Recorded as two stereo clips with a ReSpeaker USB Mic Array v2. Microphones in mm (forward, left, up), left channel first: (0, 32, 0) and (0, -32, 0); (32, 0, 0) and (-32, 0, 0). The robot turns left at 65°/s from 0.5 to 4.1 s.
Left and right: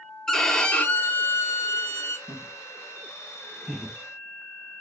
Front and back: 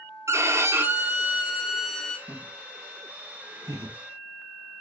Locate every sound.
0.3 s a violin: 170° left, 0.6 m; by 2.2 s 60° left, 0.6 m
2.3 s laughter: 90° right, 3 m; by 3.9 s 160° left, 3 m